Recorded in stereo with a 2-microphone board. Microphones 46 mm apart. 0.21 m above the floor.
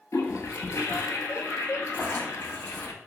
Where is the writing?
45° left (ahead or behind), 0.8 m.